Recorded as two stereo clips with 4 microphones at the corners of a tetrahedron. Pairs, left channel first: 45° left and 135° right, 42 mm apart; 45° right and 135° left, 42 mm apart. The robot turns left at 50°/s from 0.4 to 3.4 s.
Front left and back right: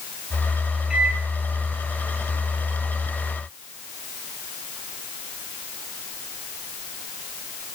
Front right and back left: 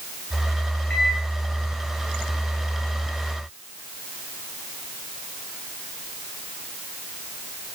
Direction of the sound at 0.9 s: 75° right.